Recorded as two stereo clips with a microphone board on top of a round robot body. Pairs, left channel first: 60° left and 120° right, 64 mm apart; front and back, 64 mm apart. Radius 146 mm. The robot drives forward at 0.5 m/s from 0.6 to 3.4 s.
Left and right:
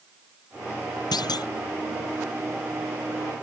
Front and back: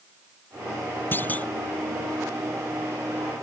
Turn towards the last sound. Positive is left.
turn(degrees=130)